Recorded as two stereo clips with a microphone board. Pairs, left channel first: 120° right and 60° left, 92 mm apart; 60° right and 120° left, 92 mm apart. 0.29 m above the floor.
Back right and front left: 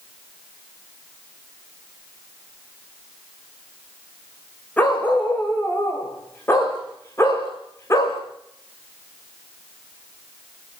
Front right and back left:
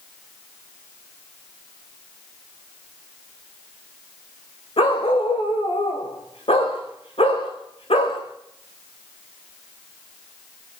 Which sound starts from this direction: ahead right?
A dog barking, at 4.8 s.